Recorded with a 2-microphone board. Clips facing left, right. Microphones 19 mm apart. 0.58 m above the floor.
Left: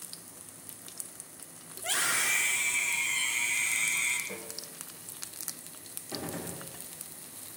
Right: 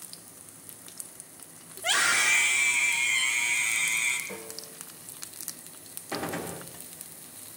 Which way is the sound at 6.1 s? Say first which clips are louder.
Right 5 dB; 45° right (ahead or behind).